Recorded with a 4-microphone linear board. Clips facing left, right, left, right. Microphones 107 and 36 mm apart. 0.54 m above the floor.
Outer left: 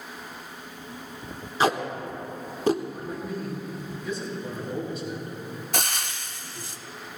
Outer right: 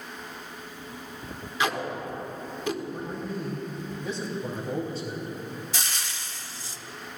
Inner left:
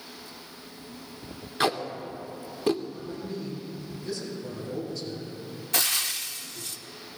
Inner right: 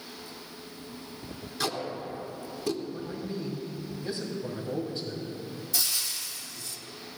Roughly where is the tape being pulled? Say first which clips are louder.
Outer left 4 dB, inner left 5 dB; left.